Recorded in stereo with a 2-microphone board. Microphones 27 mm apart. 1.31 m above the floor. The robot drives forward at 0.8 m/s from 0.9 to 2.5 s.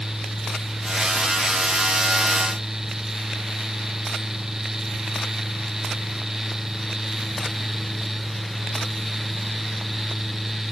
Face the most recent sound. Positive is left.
No sound to turn to.